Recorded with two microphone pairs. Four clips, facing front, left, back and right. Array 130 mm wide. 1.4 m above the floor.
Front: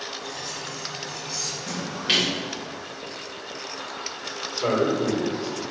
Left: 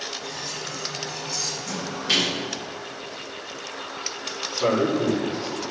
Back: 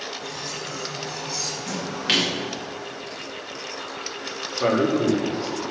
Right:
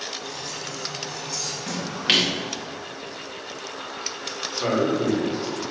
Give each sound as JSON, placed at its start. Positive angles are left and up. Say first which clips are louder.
{"t": 0.2, "sound": "cutlery clinking", "louder": "even, back 2 dB", "azimuth_deg": 165, "distance_m": 3.5}
{"t": 1.7, "sound": "a splash", "louder": "right 2 dB, back 1 dB", "azimuth_deg": -120, "distance_m": 2.0}
{"t": 4.6, "sound": "a man speaking", "louder": "left 1 dB, back 2 dB", "azimuth_deg": -175, "distance_m": 2.5}